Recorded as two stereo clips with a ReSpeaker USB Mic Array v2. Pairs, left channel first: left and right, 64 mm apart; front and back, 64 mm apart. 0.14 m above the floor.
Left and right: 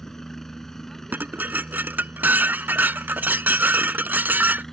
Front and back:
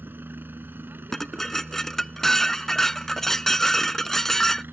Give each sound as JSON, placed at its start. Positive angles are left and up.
{"t": 0.0, "sound": "a helicopter", "azimuth_deg": 170}
{"t": 1.1, "sound": "dishes clattering", "azimuth_deg": -80}